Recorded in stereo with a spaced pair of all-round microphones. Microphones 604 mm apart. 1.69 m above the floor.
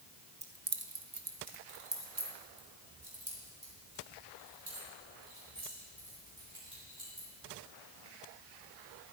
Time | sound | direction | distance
0.4 | keys jangling | 10° right (ahead or behind) | 0.7 m